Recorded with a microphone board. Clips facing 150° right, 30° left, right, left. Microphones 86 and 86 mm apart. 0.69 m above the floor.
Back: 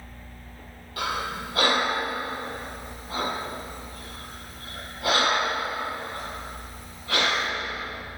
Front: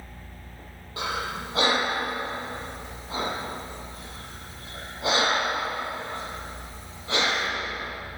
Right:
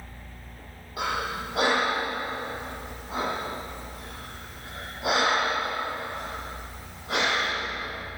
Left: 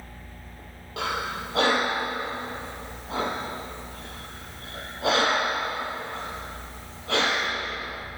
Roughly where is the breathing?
Left.